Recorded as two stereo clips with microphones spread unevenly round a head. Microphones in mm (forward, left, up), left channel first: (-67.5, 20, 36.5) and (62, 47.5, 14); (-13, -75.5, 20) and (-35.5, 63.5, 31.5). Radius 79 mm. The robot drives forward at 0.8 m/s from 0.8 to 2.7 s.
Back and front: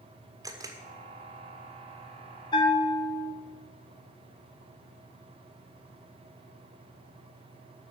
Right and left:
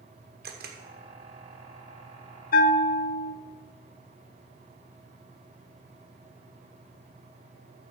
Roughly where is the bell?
Right.